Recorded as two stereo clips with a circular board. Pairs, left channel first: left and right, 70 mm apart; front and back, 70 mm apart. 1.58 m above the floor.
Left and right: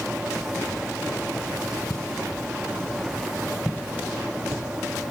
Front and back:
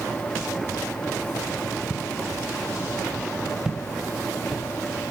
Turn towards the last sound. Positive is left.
turn(degrees=-100)